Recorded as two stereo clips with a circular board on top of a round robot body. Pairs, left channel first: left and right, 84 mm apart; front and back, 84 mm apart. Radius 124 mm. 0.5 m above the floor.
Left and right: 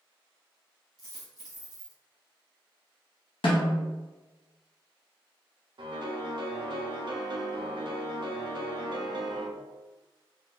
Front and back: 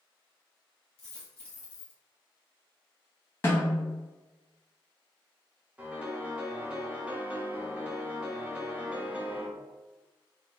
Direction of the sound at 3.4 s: 65° left.